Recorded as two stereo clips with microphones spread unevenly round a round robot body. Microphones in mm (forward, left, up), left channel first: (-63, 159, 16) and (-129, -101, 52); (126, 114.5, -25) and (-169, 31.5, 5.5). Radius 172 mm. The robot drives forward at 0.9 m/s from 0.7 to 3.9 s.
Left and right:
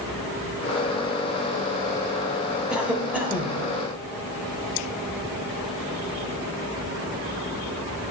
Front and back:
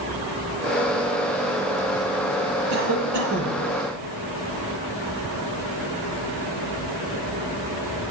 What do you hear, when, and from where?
2.7 s a cough: 165° left, 2.5 m; by 3.6 s 170° left, 3 m